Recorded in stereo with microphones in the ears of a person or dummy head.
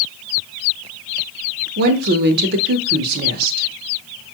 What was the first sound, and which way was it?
A woman speaking, 60° right (ahead or behind).